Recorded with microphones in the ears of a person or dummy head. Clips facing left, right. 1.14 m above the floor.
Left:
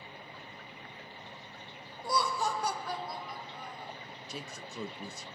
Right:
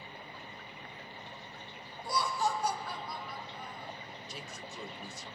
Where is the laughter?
80° left, 0.8 m; by 3.9 s centre (ahead or behind), 1.1 m.